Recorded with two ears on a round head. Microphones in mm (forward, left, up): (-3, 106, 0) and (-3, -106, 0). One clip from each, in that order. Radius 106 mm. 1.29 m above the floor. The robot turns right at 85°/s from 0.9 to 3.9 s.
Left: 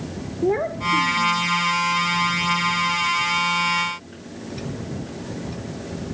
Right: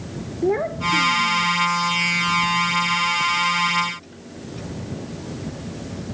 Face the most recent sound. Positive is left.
turn(degrees=70)